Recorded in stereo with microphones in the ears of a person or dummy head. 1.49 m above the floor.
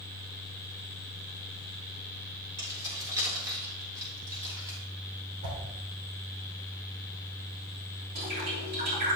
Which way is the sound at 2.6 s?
25° right (ahead or behind).